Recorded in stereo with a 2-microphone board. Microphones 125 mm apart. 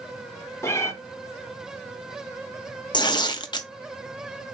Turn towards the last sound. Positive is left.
turn(degrees=35)  # may be behind; listen again after turning